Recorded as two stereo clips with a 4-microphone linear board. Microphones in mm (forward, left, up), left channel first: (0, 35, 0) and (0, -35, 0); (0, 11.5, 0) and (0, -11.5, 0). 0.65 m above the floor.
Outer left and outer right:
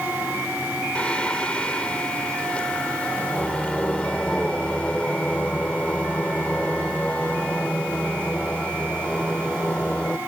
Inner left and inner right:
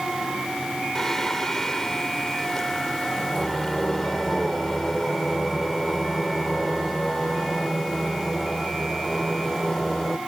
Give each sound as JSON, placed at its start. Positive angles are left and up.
{"t": 0.9, "sound": "singing", "side_deg": 20}